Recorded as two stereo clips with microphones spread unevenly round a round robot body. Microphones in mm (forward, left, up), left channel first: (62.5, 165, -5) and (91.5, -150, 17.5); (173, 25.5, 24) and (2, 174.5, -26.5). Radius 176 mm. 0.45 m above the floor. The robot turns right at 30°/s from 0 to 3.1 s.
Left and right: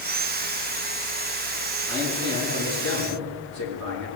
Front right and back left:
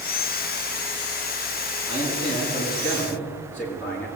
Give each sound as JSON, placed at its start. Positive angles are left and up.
{"t": 1.9, "sound": "a man speaking", "azimuth_deg": -175, "distance_m": 6.0}